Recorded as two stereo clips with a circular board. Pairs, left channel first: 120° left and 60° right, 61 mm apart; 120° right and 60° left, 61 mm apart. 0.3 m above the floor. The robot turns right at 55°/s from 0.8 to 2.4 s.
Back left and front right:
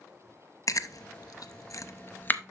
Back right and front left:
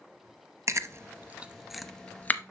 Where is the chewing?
95° left, 0.6 m; by 2.4 s 175° right, 0.6 m.